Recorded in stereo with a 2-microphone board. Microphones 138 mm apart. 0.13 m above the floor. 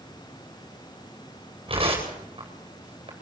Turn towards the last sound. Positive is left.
turn(degrees=-40)  # may be behind; listen again after turning